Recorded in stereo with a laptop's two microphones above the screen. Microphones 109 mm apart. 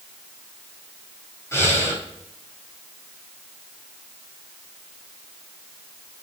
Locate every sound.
1.5 s breathing: 25° left (ahead or behind), 3 m